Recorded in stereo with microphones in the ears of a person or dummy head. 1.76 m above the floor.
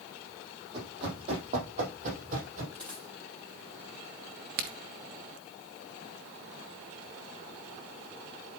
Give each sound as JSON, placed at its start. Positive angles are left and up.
{"t": 0.7, "sound": "running footsteps", "side_deg": -35, "distance_m": 4.5}
{"t": 2.7, "sound": "a dropped coin", "side_deg": 0, "distance_m": 3.0}
{"t": 4.6, "sound": "a crack", "side_deg": -50, "distance_m": 1.2}